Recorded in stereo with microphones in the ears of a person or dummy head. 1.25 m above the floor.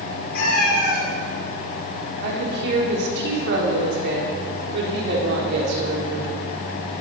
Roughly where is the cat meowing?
Left.